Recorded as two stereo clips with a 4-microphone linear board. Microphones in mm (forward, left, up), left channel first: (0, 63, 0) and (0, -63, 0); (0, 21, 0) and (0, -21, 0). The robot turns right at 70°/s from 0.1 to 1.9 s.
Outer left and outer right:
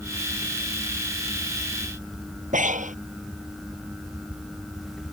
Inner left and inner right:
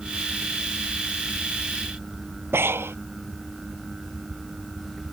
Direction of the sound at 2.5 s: 85° right.